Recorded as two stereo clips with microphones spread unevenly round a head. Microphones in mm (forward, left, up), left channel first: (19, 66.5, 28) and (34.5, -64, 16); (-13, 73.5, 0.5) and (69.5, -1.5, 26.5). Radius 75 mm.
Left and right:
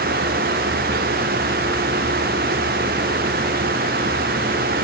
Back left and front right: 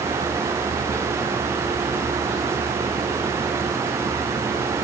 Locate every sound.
Only background noise.